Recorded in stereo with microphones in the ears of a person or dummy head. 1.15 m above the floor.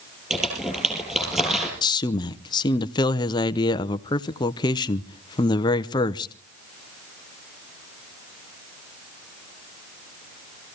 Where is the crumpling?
10° right (ahead or behind), 8 m.